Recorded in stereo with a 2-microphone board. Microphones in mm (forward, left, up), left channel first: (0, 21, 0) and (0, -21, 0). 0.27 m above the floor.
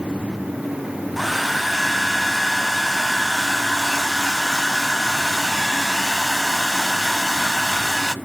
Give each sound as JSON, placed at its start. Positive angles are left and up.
{"t": 1.2, "sound": "a hair dryer", "side_deg": 0, "distance_m": 0.7}